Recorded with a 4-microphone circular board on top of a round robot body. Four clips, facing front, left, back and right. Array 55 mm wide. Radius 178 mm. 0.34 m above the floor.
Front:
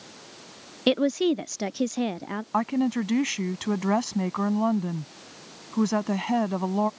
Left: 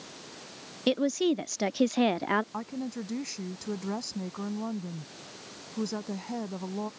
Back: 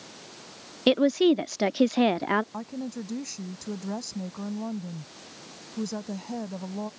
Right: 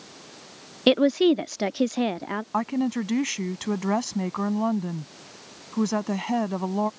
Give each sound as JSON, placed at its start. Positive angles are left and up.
{"t": 0.9, "sound": "a woman speaking", "azimuth_deg": -90}
{"t": 2.5, "sound": "a woman speaking", "azimuth_deg": -35}